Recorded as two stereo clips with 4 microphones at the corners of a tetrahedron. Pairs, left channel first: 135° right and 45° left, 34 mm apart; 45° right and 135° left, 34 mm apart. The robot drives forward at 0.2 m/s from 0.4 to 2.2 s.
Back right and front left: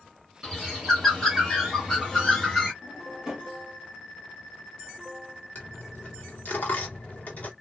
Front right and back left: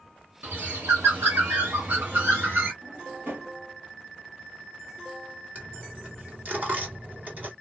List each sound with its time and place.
0.4 s a bird: 135° left, 2.5 m; by 2.7 s 140° left, 2.5 m
2.8 s a drawer: 120° left, 3 m
5.5 s a dropped coin: straight behind, 1.7 m